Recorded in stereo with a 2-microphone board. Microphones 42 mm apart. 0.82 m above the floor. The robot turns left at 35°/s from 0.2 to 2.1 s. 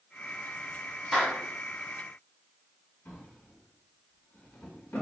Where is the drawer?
80° left, 1.8 m.